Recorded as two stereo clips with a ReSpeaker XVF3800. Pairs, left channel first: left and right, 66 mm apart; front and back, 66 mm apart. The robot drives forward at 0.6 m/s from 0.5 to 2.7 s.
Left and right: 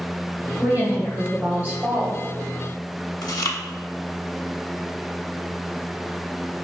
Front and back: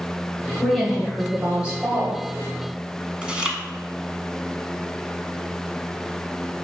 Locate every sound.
0.6 s a woman speaking: 80° right, 1.4 m; by 2.2 s 140° right, 1.6 m
3.2 s chewing: 105° left, 0.6 m